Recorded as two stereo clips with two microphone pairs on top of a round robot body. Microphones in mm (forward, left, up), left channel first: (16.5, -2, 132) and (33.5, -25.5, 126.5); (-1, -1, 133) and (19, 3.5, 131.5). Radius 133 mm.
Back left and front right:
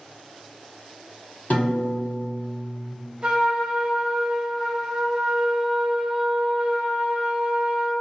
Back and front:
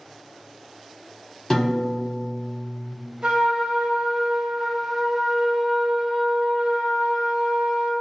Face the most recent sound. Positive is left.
turn(degrees=-5)